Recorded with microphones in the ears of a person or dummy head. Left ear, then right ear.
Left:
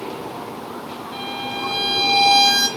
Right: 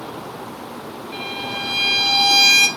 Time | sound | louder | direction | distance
1.1 | a violin | right 1 dB | centre (ahead or behind) | 4.5 m